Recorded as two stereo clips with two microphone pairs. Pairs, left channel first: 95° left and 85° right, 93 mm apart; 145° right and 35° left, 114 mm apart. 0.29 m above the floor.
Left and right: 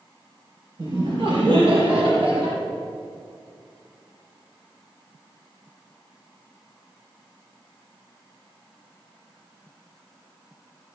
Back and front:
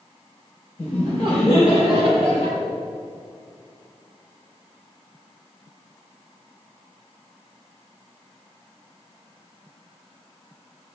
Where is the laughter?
120° right, 5.5 m.